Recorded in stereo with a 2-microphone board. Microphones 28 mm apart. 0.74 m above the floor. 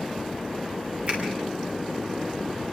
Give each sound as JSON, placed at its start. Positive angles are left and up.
{"t": 1.1, "sound": "a finger snap", "side_deg": -40, "distance_m": 5.5}